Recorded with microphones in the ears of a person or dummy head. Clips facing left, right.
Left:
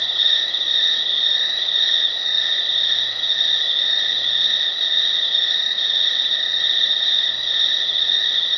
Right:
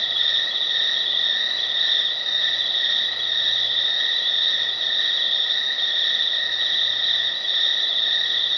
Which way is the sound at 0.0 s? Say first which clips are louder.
Left 1 dB; 30° left (ahead or behind).